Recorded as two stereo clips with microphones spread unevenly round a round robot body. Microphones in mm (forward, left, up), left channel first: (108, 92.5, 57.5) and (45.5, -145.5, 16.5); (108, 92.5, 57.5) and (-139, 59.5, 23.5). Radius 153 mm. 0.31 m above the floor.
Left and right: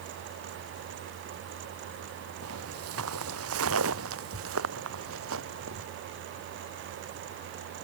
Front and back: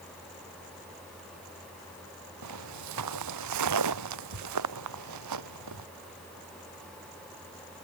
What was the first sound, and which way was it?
Footsteps, 145° right.